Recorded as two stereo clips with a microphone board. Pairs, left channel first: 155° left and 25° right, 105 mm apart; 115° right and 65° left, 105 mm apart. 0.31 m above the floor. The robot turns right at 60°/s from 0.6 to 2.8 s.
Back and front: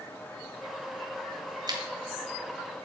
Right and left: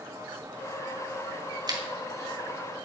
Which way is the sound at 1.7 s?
20° left.